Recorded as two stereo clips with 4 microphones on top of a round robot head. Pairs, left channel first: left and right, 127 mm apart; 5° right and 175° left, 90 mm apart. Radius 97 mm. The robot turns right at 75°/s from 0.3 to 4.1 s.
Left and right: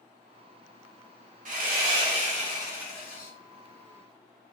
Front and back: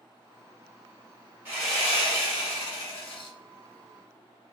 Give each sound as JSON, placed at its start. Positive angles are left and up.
{"t": 1.4, "sound": "sawing", "azimuth_deg": -110, "distance_m": 1.4}